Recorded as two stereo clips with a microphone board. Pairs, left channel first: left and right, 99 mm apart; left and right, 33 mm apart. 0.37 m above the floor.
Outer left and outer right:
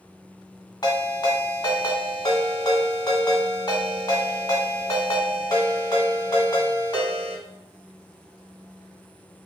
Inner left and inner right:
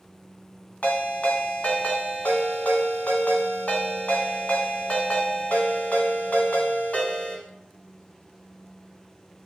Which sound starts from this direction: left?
A ringtone, at 0.8 s.